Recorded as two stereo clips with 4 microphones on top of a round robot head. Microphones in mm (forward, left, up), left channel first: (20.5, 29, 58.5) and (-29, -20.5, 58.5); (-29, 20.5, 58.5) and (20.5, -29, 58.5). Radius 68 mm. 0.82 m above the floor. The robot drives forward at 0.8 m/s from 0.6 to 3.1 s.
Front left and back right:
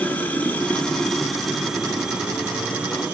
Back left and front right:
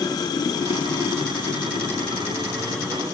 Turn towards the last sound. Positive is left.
turn(degrees=155)